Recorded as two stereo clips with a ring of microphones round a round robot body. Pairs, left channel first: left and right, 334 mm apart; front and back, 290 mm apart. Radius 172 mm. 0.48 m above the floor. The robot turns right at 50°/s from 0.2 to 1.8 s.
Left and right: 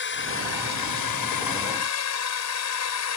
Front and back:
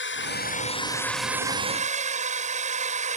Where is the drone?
40° left; by 3.2 s 120° left.